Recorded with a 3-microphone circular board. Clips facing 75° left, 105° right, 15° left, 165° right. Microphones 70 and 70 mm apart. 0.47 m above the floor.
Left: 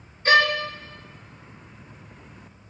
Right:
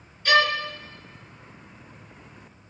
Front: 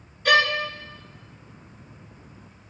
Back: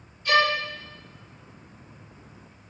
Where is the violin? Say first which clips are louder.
Left 2 dB, front 2 dB; 20° left, 1.2 m.